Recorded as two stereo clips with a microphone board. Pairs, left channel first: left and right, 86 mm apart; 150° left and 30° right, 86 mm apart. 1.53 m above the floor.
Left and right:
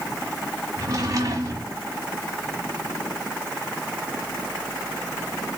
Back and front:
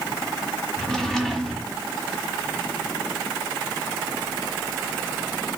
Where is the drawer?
125° right, 1.6 m.